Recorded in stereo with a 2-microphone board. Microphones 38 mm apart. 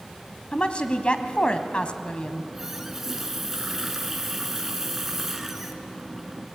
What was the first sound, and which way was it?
A woman speaking, 30° left (ahead or behind).